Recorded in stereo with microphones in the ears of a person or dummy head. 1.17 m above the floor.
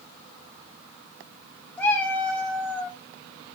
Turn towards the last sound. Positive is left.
turn(degrees=10)  # may be behind; listen again after turning